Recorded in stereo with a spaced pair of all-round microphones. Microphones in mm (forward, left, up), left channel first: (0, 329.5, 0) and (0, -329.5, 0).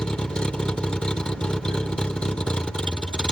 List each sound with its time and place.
0.0 s a vehicle: centre (ahead or behind)